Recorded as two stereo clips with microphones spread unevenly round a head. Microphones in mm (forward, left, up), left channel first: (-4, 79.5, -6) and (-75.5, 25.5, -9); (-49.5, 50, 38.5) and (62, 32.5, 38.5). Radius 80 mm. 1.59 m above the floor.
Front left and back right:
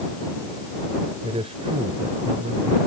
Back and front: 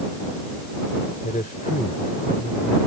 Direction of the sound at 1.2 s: 145° right.